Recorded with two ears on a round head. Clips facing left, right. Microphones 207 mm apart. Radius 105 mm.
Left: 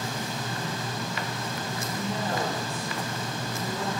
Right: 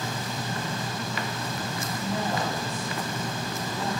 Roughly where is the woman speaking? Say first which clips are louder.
Right 1 dB; left.